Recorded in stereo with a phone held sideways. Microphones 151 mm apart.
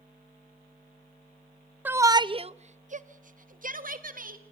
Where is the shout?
10° right (ahead or behind), 0.6 m; by 4.4 s 65° right (ahead or behind), 1.5 m.